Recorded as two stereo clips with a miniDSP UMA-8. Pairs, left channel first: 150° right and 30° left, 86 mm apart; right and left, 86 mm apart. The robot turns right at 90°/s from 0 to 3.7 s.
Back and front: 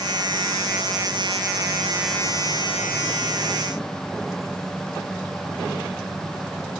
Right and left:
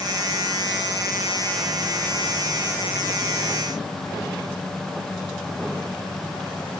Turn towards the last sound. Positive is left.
No sound to turn to.